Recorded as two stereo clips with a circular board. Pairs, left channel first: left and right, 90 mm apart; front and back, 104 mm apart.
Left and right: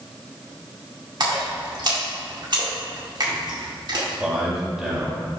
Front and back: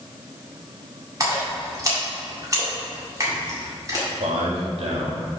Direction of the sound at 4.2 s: 175° right.